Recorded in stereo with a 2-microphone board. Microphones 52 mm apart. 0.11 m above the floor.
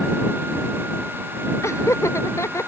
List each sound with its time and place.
1.6 s laughter: 60° left (ahead or behind)